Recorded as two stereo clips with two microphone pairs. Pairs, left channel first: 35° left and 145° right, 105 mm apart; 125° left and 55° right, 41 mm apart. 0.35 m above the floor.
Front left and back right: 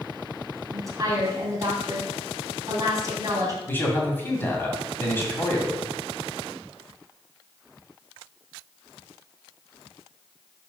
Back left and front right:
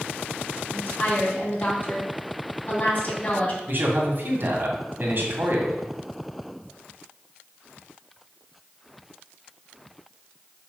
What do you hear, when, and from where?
0.7 s a woman speaking: 165° left, 2.5 m
3.7 s a man speaking: 30° right, 2 m